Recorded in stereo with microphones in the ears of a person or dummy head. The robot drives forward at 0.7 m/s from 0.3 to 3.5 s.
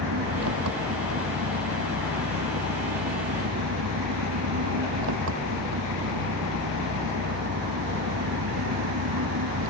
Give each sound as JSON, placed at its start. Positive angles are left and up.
{"t": 0.0, "sound": "an engine running", "side_deg": -85}